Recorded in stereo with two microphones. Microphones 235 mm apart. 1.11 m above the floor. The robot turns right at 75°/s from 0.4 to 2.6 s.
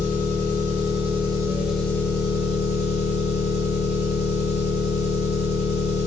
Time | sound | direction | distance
0.0 | an engine running | 100° right | 0.9 m